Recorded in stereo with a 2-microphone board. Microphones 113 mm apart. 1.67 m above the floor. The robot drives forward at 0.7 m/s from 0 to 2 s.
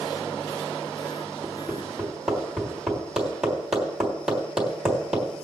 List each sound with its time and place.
1.4 s hammering: 5° right (ahead or behind), 3 m